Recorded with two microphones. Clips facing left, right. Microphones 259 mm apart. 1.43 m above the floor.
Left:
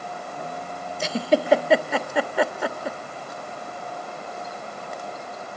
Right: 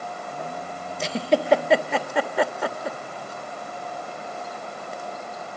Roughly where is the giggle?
Centre.